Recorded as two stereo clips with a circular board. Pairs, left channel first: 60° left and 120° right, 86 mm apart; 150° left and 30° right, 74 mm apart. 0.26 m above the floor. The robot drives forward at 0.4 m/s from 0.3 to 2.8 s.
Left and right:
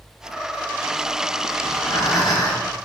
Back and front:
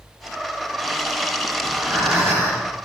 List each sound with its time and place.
1.6 s breathing: 25° left, 4 m; by 2.7 s 30° left, 3.5 m